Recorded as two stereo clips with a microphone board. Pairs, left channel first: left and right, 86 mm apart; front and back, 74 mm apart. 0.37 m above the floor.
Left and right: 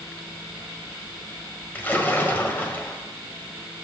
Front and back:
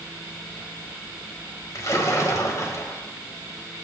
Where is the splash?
25° left, 1.8 m.